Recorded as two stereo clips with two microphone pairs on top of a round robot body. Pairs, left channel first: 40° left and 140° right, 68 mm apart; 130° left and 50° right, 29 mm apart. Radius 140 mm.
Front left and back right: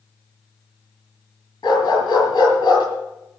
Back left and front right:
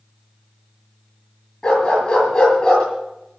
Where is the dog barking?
65° left, 7.5 m.